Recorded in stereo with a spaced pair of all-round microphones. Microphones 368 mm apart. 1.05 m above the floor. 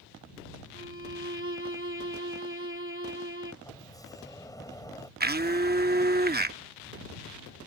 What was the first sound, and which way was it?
A violin, 35° right (ahead or behind).